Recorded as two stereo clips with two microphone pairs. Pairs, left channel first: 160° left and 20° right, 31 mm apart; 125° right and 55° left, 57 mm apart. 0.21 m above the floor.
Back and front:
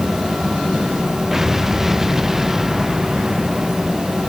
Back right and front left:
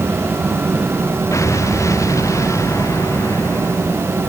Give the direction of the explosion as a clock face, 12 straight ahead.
3 o'clock.